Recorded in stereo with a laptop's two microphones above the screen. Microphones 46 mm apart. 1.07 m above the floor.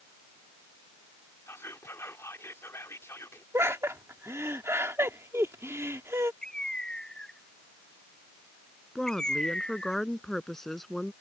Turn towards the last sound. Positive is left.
turn(degrees=10)  # may be behind; listen again after turning